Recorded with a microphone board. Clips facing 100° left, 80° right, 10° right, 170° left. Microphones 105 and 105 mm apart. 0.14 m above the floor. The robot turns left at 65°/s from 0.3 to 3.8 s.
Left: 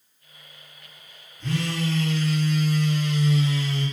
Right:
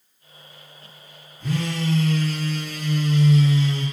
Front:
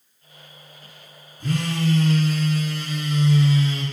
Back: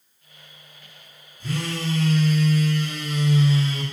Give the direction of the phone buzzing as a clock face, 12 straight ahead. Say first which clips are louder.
Right 1 dB, front 4 dB; 12 o'clock.